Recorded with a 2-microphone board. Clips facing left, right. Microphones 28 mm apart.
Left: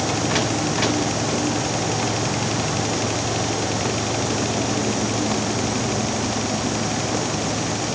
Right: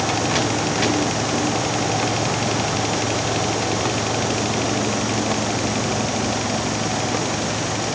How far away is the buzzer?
No buzzer in this recording.